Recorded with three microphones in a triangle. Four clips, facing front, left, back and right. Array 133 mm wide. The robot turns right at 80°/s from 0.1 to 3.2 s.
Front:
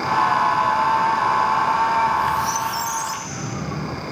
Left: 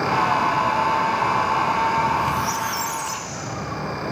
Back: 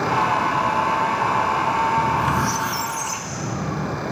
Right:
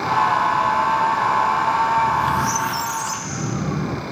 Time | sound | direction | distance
2.0 | a squeak | 175° left | 1.3 m